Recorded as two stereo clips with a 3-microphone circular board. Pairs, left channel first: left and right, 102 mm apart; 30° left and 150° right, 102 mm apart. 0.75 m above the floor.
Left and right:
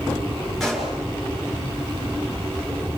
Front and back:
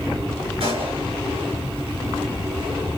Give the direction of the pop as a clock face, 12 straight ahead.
6 o'clock.